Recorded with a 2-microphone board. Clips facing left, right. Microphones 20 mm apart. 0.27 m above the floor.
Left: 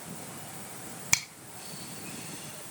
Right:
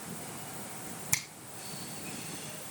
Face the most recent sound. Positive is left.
turn(degrees=40)  # may be behind; listen again after turning